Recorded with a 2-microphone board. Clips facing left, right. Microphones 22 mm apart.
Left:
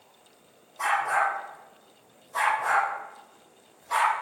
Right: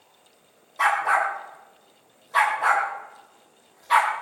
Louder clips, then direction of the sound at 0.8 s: Right 4 dB; 70° right (ahead or behind).